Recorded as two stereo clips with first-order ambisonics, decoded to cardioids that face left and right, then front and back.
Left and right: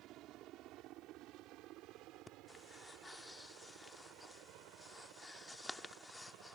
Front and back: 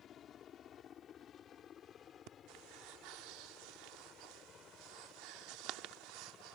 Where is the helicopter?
55° right; by 6.5 s 65° right.